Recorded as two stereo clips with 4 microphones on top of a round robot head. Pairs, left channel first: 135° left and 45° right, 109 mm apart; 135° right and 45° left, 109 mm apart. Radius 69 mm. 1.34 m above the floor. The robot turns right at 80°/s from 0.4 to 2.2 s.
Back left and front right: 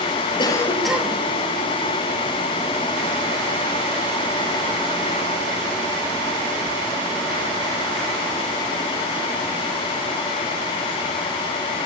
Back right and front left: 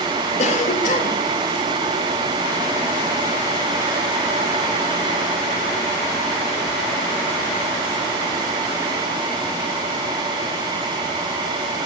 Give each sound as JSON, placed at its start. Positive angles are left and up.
{"t": 0.4, "sound": "a cough", "azimuth_deg": -170, "distance_m": 2.5}